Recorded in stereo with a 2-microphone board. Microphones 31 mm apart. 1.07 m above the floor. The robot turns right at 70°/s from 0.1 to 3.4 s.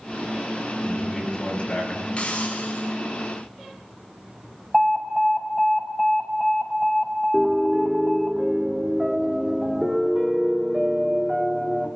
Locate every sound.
0.8 s a man speaking: 10° right, 10 m; by 2.1 s 75° left, 10 m
2.2 s a hiss: 40° left, 5.5 m; by 2.9 s 95° left, 5.5 m
4.7 s an alarm: 10° right (ahead or behind), 5 m
7.3 s a piano: 15° right (ahead or behind), 2 m